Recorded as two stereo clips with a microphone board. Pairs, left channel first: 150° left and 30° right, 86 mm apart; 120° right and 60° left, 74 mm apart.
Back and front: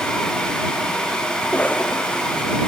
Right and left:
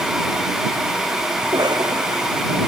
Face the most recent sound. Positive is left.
turn(degrees=80)